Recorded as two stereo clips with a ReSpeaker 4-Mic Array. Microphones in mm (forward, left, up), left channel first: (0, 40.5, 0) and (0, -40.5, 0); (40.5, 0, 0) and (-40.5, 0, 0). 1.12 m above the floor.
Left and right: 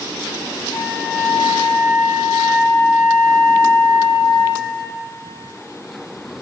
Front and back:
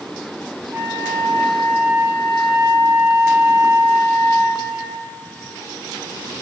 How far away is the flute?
About 1.9 m.